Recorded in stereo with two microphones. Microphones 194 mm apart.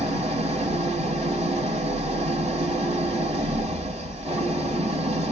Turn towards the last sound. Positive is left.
turn(degrees=-35)  # may be behind; listen again after turning